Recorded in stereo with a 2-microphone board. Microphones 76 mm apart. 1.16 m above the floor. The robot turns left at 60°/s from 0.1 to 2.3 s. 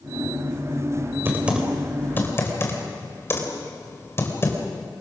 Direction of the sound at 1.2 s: 30° right (ahead or behind).